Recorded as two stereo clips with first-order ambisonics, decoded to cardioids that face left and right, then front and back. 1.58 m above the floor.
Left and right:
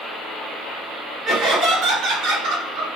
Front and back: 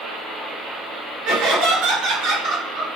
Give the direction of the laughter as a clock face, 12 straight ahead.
5 o'clock.